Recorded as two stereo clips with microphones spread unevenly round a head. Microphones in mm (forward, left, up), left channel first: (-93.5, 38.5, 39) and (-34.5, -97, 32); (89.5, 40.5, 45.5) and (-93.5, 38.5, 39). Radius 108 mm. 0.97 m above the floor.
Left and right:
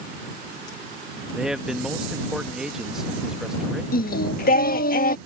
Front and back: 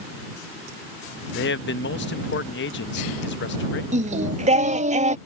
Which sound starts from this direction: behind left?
Singing, at 3.9 s.